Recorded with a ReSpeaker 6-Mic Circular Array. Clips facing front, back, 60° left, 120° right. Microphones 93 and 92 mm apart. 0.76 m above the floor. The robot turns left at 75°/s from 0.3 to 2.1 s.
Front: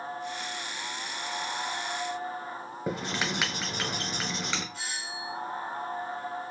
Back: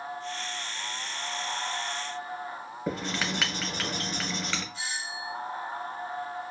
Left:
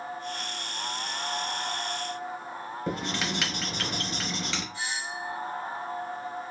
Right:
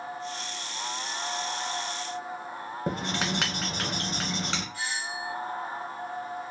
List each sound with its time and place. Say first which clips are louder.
2.9 s writing: even, right 1 dB; 75° right, 1.1 m
4.7 s a doorbell: back 1 dB, even; straight ahead, 2.5 m